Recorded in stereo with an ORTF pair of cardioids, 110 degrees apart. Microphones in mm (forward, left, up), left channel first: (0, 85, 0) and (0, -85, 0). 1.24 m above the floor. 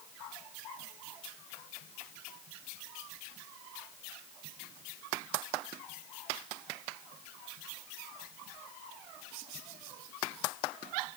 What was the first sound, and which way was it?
Only background noise.